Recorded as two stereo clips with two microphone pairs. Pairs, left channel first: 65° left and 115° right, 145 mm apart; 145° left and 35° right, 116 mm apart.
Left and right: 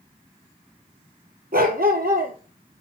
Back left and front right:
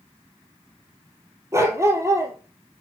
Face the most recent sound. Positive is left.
turn(degrees=-100)